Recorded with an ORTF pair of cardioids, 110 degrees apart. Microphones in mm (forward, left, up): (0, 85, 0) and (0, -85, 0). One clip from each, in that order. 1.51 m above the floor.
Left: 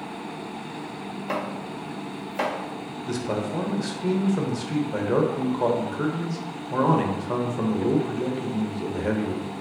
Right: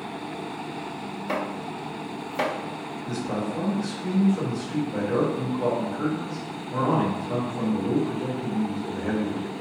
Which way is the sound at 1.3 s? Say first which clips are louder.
Right 1 dB; 15° right.